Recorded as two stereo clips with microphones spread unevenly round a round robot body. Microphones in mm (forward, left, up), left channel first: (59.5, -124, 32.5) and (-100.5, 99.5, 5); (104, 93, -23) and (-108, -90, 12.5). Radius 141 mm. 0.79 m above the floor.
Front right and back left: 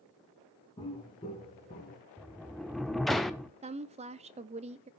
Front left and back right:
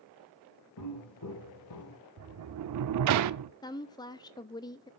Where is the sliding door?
140° right, 0.5 m.